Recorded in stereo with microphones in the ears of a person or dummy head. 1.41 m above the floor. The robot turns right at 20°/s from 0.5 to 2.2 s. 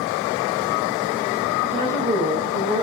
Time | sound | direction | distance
1.6 | a woman speaking | 25° right (ahead or behind) | 2.5 m